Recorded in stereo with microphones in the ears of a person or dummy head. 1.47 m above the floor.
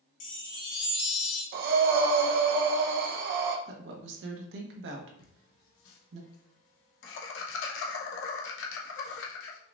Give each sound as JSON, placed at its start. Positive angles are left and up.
{"t": 0.2, "sound": "a chime", "side_deg": 45, "distance_m": 1.3}
{"t": 1.5, "sound": "breathing", "side_deg": -60, "distance_m": 0.9}
{"t": 3.7, "sound": "a woman speaking", "side_deg": -70, "distance_m": 1.2}
{"t": 5.2, "sound": "laughter", "side_deg": 80, "distance_m": 1.4}